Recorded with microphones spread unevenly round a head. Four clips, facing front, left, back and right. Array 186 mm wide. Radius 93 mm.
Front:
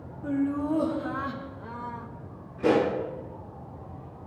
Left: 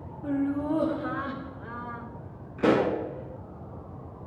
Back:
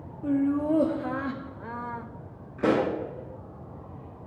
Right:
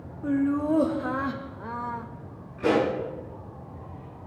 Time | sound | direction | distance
0.2 | laughter | 145° right | 1.4 m
2.6 | a pop | 165° left | 5 m